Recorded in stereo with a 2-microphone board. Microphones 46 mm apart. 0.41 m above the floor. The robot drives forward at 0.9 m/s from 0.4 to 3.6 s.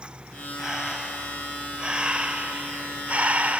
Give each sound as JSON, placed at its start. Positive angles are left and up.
{"t": 0.6, "sound": "breathing", "side_deg": -15, "distance_m": 2.5}